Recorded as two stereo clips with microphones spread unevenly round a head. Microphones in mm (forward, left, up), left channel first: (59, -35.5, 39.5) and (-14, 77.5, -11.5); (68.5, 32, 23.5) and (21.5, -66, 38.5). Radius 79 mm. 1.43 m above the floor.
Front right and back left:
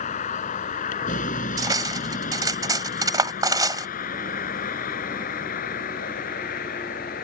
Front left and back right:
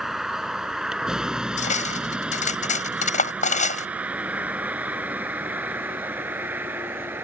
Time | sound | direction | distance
0.0 | a vehicle | 30° right | ?
1.6 | cutlery clinking | 55° left | ?